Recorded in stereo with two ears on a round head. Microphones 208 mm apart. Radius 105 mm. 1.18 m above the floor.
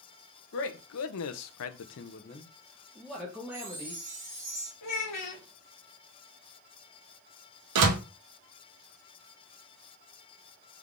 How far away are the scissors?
I don't hear scissors.